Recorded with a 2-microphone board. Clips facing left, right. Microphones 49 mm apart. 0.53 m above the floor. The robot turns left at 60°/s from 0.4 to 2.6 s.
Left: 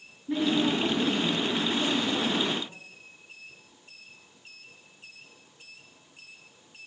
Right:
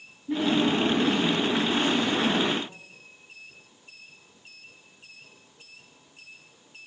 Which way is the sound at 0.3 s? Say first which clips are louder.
Right 2 dB; straight ahead.